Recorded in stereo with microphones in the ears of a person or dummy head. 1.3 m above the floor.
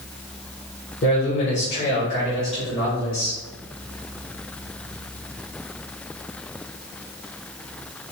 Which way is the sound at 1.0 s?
50° left (ahead or behind).